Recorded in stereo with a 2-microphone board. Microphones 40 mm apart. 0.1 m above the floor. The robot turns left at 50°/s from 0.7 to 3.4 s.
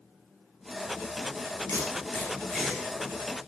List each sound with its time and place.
1.7 s tape being pulled: 55° left (ahead or behind), 5.5 m; by 3.5 s 30° right (ahead or behind), 5.5 m